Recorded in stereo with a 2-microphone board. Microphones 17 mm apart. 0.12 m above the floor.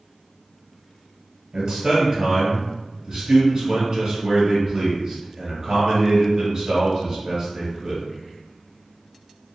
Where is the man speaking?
35° right (ahead or behind), 1.5 m.